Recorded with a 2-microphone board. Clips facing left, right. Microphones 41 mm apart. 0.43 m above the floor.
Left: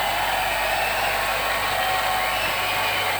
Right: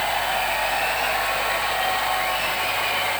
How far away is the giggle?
I don't hear a giggle.